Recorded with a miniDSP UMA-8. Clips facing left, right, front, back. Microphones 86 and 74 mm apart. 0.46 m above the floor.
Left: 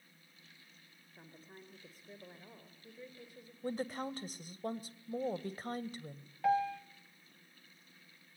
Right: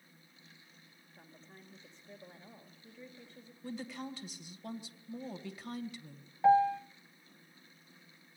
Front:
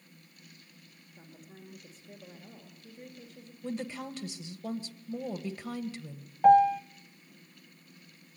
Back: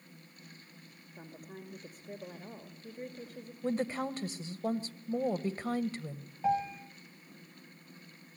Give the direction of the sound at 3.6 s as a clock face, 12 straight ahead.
8 o'clock.